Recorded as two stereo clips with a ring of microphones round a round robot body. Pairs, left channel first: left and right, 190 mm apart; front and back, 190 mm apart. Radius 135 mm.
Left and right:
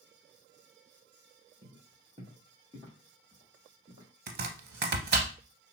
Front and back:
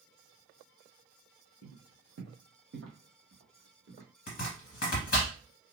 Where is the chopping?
55° right, 0.6 m.